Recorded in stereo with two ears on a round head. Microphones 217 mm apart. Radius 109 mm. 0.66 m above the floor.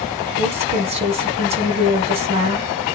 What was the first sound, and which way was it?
A woman speaking, 25° right (ahead or behind).